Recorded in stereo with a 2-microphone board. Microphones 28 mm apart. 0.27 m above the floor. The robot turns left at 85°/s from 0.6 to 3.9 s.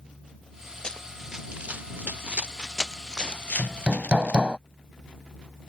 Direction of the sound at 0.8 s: 35° left (ahead or behind).